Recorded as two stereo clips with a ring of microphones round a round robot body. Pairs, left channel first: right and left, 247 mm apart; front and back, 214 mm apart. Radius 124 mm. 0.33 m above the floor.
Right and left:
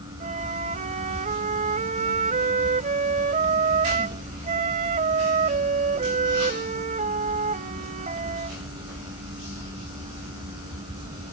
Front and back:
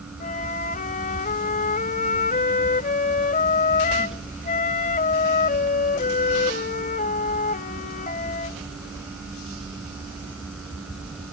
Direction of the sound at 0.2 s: 35° left.